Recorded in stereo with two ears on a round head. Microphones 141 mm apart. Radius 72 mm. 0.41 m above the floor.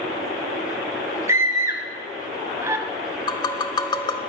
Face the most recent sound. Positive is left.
turn(degrees=30)  # may be behind; listen again after turning